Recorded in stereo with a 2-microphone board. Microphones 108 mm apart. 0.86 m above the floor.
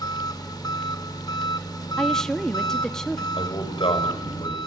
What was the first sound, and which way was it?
An engine running, 40° left (ahead or behind).